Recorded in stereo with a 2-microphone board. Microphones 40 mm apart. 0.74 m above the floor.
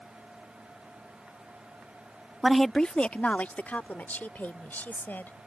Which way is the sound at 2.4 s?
10° right (ahead or behind).